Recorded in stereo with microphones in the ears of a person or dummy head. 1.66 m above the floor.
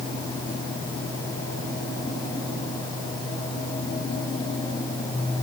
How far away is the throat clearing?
I don't hear throat clearing.